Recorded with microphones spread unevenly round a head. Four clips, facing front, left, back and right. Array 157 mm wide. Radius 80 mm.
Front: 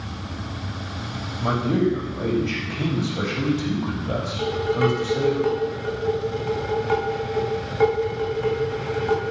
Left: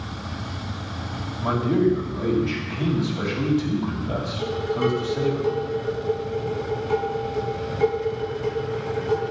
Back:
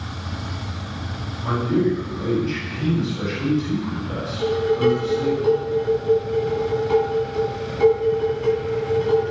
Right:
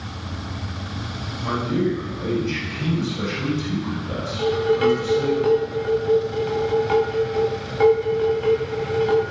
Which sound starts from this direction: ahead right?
Dishes clattering, at 4.4 s.